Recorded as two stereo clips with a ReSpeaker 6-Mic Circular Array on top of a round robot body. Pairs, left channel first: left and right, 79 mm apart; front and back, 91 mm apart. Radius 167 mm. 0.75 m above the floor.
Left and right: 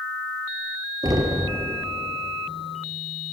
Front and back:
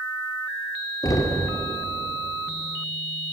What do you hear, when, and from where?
1.0 s knocking: 50° right, 2.5 m